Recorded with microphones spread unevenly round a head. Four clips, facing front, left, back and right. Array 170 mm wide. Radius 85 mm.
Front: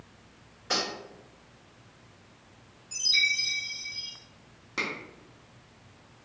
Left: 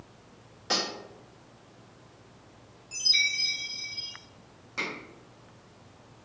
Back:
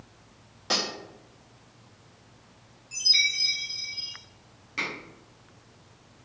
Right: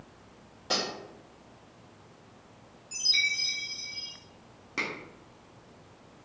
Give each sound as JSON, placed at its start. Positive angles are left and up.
{"t": 0.7, "sound": "cutlery clinking", "azimuth_deg": 170, "distance_m": 1.2}
{"t": 2.9, "sound": "a chime", "azimuth_deg": -95, "distance_m": 1.0}
{"t": 4.8, "sound": "a finger snap", "azimuth_deg": -65, "distance_m": 0.9}